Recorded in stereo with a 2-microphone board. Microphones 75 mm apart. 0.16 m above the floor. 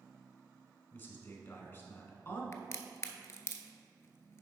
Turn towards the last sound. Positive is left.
turn(degrees=40)  # may be behind; listen again after turning